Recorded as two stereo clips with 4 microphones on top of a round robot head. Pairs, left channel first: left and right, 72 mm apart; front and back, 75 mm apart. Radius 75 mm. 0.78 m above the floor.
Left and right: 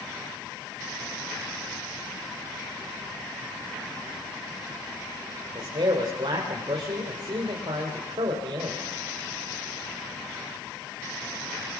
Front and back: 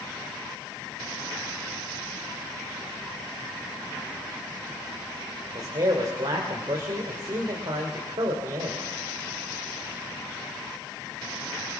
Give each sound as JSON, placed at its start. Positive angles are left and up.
{"t": 5.5, "sound": "a man speaking", "azimuth_deg": -135, "distance_m": 3.0}